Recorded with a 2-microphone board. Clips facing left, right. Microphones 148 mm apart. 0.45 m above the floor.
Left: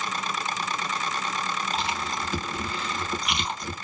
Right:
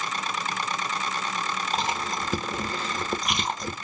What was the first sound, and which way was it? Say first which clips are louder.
Chewing: right 2 dB; 45° right (ahead or behind).